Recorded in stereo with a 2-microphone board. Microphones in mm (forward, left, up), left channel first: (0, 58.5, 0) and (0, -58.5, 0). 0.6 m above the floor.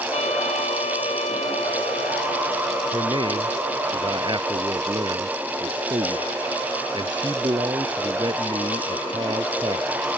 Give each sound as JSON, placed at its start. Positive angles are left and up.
{"t": 0.1, "sound": "a trumpet", "side_deg": 70}
{"t": 2.9, "sound": "a man speaking", "side_deg": -40}